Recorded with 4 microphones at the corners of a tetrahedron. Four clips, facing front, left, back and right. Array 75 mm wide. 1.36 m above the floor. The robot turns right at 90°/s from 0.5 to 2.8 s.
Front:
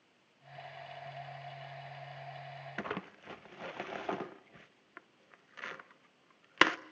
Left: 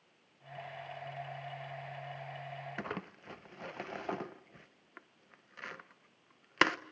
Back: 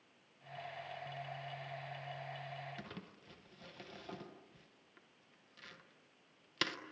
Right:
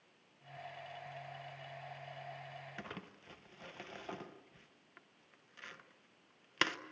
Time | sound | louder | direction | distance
2.8 | crumpling | left 7 dB, front 11 dB | 30° left | 0.7 m